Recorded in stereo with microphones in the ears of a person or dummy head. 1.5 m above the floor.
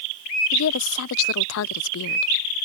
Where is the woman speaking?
70° left (ahead or behind).